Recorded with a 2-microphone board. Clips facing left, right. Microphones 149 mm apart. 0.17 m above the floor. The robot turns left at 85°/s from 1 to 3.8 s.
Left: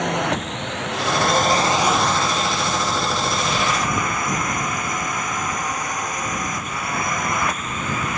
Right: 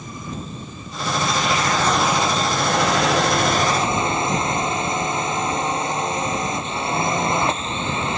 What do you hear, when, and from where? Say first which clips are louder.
0.0 s a drone: left 10 dB; 85° left; by 8.2 s 155° right